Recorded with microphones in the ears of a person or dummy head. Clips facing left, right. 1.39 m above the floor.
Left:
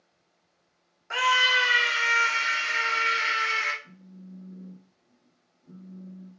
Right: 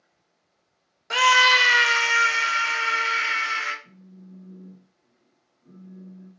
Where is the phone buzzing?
40° right (ahead or behind), 2 m.